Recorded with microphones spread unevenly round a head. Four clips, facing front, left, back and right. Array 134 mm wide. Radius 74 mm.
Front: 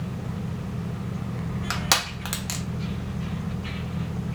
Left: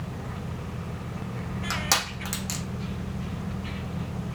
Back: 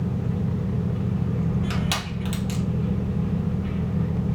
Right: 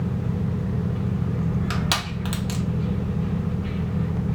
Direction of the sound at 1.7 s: 5° right.